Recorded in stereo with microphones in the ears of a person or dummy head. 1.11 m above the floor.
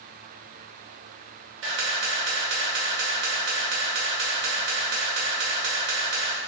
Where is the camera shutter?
45° right (ahead or behind), 0.5 m.